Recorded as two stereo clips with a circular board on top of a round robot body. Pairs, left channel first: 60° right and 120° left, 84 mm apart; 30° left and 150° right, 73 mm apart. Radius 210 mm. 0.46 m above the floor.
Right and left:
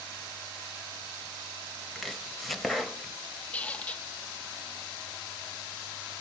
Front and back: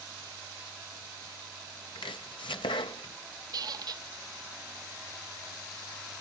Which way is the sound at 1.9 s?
30° left.